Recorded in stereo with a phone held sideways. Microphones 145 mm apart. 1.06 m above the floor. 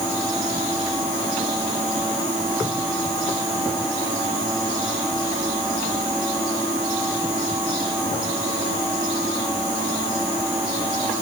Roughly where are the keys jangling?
I don't hear keys jangling.